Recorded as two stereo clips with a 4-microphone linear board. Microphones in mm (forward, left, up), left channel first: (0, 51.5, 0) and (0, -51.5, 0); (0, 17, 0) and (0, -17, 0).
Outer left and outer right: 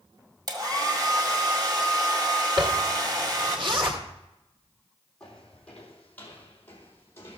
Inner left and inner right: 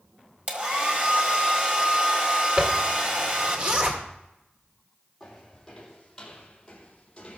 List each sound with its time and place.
0.5 s a hair dryer: 40° right (ahead or behind), 1.8 m
2.6 s a zipper: 55° right (ahead or behind), 2.0 m
5.2 s footsteps: 10° left (ahead or behind), 3.5 m; by 7.4 s 25° left (ahead or behind), 3 m